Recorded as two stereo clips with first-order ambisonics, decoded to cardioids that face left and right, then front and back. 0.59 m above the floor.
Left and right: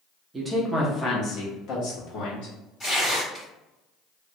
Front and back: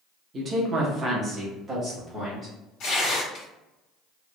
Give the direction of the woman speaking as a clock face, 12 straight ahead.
5 o'clock.